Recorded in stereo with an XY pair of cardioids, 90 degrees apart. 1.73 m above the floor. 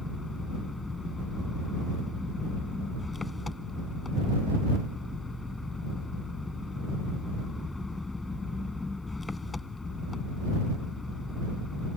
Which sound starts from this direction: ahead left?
An engine running, at 0.0 s.